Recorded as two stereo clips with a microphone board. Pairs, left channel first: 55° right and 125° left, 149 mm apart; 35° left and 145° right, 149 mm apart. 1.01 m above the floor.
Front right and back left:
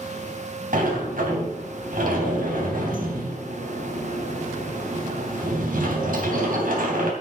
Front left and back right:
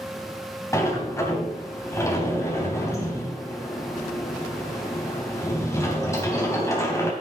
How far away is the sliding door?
About 3 m.